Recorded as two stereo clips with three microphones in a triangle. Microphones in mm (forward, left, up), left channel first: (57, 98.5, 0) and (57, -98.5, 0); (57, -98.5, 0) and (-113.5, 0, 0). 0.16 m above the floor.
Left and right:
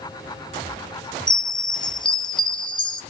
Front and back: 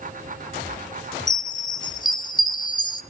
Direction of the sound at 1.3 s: 30° left.